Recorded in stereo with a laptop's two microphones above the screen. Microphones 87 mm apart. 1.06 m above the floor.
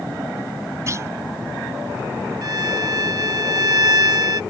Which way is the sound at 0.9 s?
35° right (ahead or behind).